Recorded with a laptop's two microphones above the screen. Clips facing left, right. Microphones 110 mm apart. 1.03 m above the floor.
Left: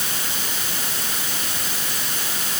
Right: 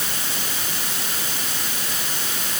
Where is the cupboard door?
I don't hear a cupboard door.